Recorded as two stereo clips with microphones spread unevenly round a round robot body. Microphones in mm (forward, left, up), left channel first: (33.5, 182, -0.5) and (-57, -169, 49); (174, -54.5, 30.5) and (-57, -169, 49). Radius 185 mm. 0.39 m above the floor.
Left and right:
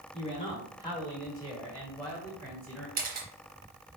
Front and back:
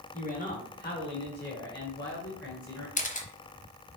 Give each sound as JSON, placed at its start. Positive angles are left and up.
{"t": 0.1, "sound": "a man speaking", "azimuth_deg": 30, "distance_m": 1.3}
{"t": 3.0, "sound": "a camera shutter", "azimuth_deg": -35, "distance_m": 1.1}